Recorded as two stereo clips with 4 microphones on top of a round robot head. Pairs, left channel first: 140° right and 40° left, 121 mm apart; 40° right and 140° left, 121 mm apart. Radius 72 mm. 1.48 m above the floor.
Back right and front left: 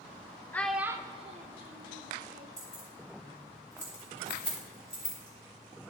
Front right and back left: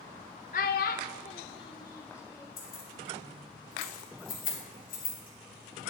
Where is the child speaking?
65° right, 0.5 m; by 2.5 s 30° left, 1.3 m.